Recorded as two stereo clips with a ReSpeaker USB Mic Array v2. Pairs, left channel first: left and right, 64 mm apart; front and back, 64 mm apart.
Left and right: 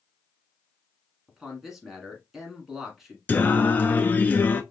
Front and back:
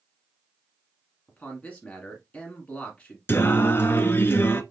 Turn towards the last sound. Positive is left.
turn(degrees=40)